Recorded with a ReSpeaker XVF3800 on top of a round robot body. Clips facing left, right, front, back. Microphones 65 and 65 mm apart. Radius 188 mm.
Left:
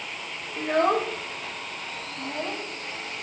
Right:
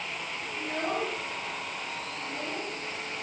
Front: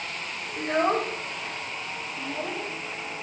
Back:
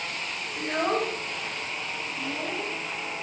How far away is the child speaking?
About 1.5 m.